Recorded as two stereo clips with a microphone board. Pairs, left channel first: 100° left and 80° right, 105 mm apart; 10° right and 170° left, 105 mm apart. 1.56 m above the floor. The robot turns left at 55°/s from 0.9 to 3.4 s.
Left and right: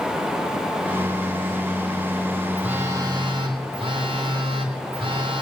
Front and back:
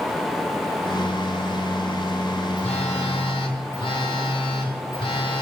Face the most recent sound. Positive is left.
turn(degrees=-45)